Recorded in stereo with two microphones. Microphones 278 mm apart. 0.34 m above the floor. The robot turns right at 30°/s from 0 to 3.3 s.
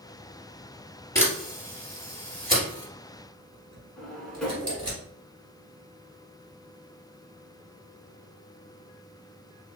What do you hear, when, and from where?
1.1 s a camera shutter: 10° left (ahead or behind), 2 m; by 5.0 s 55° right (ahead or behind), 2 m
4.0 s a drawer: 5° left (ahead or behind), 1.1 m